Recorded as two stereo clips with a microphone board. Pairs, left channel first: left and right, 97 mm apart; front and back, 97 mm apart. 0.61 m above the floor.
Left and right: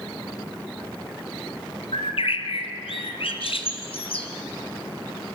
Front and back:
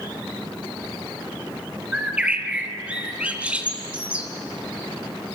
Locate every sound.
1.9 s a bird: 105° left, 2.5 m